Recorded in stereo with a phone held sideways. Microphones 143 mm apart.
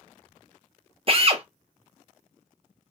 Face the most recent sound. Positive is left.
turn(degrees=-40)  # may be behind; listen again after turning